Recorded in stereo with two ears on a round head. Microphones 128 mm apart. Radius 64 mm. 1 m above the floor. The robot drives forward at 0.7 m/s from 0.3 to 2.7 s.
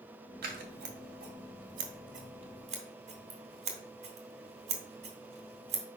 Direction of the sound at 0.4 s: 70° right (ahead or behind).